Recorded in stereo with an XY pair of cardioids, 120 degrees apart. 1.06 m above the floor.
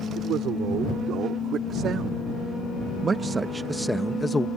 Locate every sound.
0.1 s a man speaking: 65° right; by 4.5 s 25° left